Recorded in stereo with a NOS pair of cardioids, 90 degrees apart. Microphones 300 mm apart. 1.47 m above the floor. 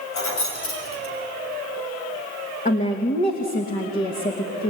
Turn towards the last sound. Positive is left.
turn(degrees=30)